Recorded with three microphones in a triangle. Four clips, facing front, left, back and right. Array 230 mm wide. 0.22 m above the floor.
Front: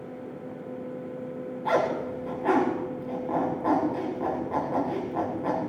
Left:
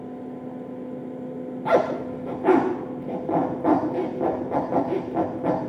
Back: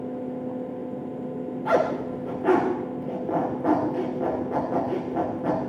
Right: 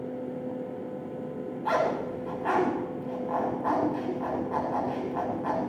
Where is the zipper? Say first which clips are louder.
Left 6 dB, back 2 dB; 110° left, 8.5 m.